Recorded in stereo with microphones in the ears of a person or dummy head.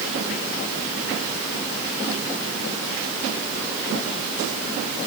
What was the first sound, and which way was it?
Only background noise.